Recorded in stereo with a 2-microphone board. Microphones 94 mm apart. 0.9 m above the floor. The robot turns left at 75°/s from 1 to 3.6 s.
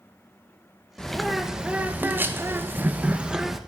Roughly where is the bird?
Centre.